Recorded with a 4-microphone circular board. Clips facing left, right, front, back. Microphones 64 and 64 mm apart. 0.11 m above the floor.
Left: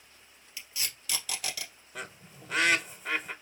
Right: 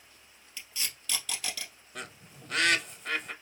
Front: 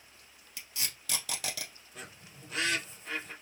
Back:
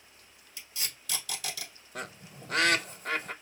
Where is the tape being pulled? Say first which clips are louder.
Even, even; 10° left, 2.5 m.